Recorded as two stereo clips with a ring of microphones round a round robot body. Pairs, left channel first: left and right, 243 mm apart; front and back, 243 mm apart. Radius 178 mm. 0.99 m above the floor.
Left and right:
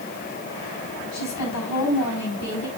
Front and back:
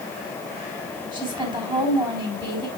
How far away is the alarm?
No alarm in this recording.